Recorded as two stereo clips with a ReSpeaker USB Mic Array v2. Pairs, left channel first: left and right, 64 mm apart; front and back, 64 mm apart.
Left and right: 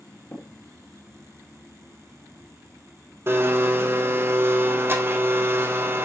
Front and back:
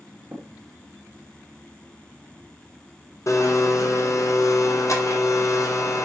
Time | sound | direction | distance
0.3 | tapping | 130° left | 2.5 m
3.3 | a blender | 35° right | 1.2 m